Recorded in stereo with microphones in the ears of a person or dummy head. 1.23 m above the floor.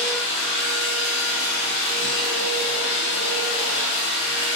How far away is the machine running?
About 0.7 m.